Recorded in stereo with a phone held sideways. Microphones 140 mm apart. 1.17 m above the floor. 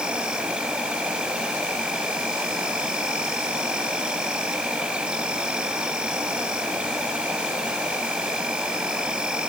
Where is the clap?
No clap in this recording.